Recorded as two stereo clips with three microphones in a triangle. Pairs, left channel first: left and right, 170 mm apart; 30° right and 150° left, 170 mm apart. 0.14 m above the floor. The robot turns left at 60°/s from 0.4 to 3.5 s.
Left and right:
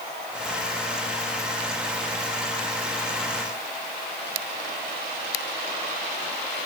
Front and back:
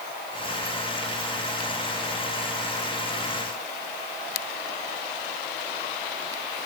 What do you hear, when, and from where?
Only background noise.